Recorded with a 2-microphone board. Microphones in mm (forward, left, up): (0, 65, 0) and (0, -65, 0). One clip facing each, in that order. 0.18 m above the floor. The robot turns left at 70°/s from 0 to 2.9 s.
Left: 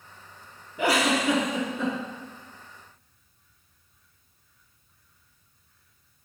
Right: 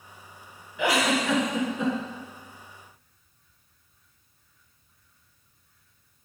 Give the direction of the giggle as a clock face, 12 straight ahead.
10 o'clock.